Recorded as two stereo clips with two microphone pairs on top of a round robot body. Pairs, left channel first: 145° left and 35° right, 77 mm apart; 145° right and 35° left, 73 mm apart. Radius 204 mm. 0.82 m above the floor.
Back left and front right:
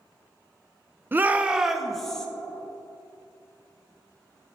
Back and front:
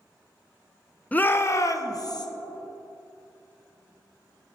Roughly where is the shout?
Right.